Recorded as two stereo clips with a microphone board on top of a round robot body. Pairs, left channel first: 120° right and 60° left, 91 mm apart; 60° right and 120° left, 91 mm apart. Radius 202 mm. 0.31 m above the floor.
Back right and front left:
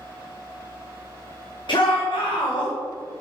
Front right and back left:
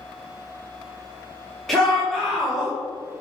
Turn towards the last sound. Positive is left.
turn(degrees=-145)